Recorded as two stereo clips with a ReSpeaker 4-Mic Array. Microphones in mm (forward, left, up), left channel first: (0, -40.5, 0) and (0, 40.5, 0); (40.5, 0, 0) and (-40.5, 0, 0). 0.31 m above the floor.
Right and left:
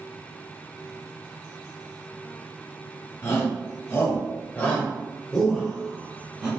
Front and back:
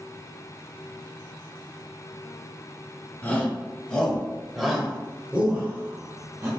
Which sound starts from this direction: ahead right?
A shout, at 3.2 s.